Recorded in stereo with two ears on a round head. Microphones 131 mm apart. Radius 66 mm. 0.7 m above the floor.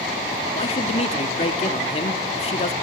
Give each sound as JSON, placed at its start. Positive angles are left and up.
{"t": 0.5, "sound": "a man speaking", "side_deg": 40, "distance_m": 1.5}